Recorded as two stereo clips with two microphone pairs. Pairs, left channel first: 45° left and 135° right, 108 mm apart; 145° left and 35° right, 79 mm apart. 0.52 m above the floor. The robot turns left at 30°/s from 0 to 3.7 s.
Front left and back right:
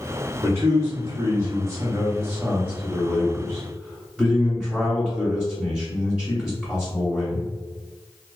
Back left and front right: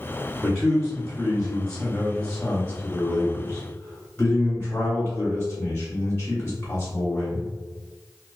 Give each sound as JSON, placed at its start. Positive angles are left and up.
{"t": 0.4, "sound": "a man speaking", "azimuth_deg": -115, "distance_m": 0.9}